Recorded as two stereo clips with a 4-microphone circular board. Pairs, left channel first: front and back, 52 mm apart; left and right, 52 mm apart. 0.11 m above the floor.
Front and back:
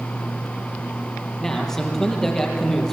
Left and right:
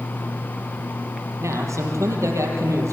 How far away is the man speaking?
About 3.5 m.